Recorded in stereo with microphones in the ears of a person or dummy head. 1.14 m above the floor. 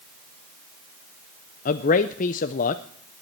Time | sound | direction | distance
1.6 | a man speaking | 45° left (ahead or behind) | 0.5 m